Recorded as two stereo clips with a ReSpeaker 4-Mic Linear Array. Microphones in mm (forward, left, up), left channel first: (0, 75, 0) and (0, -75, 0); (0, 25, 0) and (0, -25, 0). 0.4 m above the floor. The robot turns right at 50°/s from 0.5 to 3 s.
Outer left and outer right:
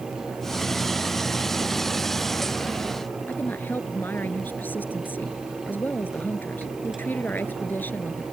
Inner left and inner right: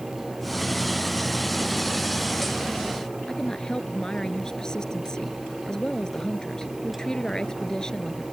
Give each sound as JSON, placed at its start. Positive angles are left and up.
{"t": 3.3, "sound": "a woman speaking", "side_deg": 10}